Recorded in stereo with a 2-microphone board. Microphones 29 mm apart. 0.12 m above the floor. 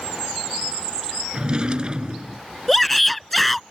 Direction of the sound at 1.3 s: 35° right (ahead or behind).